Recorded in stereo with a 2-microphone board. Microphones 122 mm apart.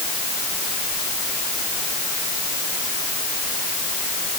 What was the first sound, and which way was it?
Only background noise.